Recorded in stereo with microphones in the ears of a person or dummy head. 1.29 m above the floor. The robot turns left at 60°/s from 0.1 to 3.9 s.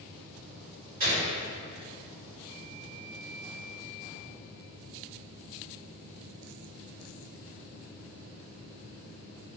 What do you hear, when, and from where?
1.0 s a gunshot: 50° right (ahead or behind), 1.9 m; by 1.3 s 30° right (ahead or behind), 1.9 m